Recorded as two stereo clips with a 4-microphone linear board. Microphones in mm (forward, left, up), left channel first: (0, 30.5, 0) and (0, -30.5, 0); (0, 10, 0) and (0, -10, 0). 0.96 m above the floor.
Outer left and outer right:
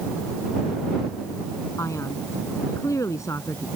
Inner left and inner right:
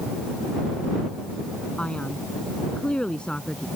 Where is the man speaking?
55° left (ahead or behind); by 3.7 s 60° left (ahead or behind).